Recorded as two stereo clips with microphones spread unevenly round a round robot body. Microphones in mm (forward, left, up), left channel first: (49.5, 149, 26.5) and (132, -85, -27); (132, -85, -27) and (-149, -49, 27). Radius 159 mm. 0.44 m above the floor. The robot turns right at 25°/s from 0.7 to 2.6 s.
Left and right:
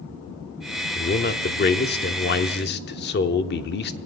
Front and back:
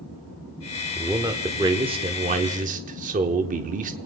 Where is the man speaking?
75° left, 0.8 m; by 4.0 s 115° left, 0.8 m.